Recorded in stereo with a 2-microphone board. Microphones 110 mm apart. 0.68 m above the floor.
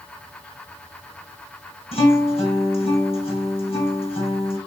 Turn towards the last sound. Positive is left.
turn(degrees=65)  # may be behind; listen again after turning